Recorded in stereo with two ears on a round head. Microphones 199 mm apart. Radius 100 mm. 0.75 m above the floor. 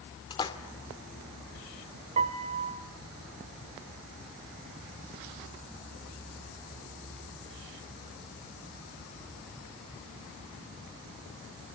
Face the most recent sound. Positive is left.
turn(degrees=-30)  # may be behind; listen again after turning